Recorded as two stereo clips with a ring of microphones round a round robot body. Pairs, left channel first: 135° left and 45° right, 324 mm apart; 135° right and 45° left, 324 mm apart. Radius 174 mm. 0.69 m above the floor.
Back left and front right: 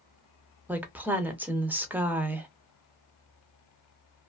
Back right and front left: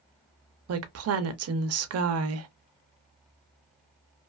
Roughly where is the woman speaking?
Ahead left.